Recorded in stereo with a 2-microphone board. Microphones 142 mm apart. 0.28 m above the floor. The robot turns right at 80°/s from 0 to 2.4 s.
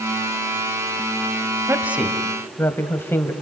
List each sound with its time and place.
1.7 s a woman speaking: 35° right, 1.8 m; by 3.3 s 25° left, 1.8 m